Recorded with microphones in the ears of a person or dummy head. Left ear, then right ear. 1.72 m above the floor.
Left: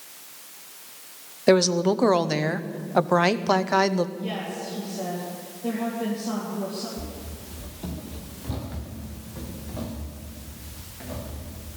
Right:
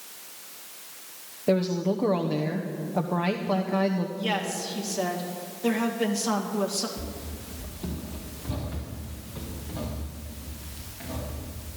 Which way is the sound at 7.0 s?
15° left (ahead or behind).